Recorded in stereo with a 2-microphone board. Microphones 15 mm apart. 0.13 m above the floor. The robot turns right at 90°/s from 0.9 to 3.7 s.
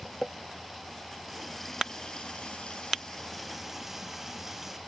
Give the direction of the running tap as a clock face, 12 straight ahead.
1 o'clock.